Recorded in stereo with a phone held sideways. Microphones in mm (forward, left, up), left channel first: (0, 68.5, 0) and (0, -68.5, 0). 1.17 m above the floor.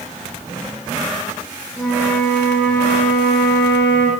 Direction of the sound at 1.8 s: 10° left (ahead or behind).